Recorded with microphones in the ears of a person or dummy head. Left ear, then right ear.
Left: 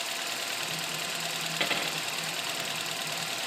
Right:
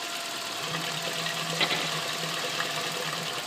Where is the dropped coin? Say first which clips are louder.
Right 2 dB; centre (ahead or behind), 7 m.